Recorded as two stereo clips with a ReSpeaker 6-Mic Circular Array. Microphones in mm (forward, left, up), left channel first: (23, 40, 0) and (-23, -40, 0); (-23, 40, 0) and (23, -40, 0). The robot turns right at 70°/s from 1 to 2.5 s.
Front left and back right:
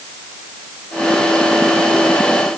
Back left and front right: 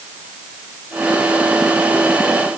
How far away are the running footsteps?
I don't hear running footsteps.